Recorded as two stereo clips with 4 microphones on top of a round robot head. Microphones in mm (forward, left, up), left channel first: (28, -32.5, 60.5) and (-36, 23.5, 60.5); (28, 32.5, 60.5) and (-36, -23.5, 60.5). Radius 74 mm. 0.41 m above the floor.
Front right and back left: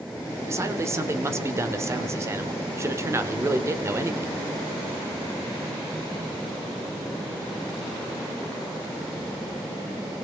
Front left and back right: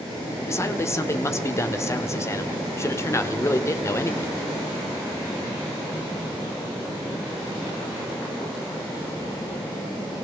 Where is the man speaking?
90° left, 1.3 m.